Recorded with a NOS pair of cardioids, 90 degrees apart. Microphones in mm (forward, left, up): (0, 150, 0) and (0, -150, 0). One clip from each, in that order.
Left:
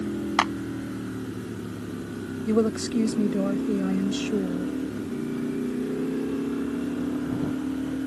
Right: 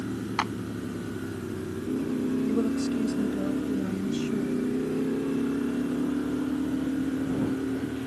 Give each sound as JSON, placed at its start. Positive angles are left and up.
{"t": 0.4, "sound": "a clap", "azimuth_deg": 50}
{"t": 2.5, "sound": "a woman speaking", "azimuth_deg": 55}